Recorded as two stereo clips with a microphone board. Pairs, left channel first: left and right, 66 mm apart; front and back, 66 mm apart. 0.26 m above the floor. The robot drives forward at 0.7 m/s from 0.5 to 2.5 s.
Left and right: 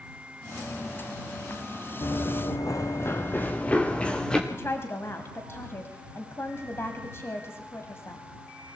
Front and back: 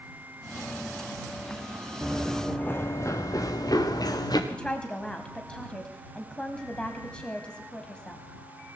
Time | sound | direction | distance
2.0 | running footsteps | 90° left | 1.4 m
4.5 | a woman speaking | 70° left | 1.7 m